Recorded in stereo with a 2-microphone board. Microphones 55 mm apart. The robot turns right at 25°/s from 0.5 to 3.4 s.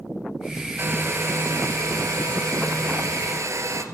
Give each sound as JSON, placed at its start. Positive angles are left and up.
{"t": 0.8, "sound": "a hair dryer", "azimuth_deg": -130, "distance_m": 1.8}